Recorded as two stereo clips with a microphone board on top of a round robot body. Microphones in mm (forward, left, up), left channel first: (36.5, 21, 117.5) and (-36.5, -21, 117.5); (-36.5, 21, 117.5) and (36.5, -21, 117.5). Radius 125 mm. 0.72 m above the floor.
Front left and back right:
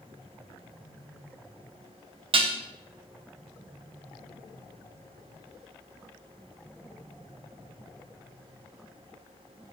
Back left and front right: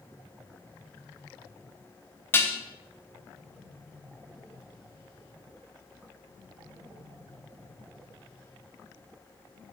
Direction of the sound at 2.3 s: 145° right.